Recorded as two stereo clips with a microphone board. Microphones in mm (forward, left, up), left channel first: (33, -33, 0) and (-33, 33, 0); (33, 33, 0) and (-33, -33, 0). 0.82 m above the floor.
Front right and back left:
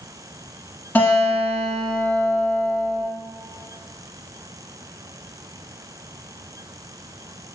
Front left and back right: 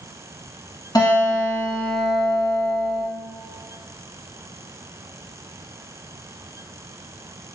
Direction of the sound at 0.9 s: 30° left.